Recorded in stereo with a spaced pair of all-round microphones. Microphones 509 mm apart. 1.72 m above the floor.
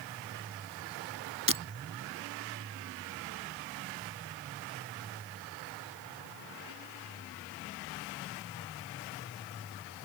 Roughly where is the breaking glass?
Right.